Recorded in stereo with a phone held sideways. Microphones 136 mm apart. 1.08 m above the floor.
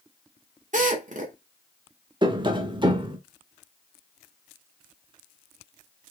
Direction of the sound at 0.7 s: 65° right (ahead or behind).